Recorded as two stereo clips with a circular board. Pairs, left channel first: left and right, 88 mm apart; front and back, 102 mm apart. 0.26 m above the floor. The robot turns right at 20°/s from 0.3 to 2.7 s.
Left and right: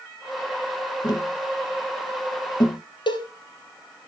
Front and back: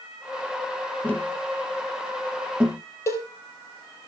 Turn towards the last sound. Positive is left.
turn(degrees=65)